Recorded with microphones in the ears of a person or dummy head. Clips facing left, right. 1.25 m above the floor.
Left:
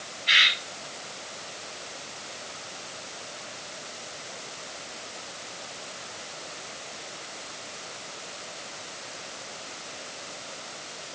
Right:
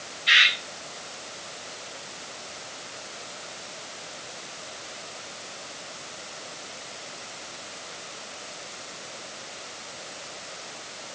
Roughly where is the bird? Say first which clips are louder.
Right 2 dB; right.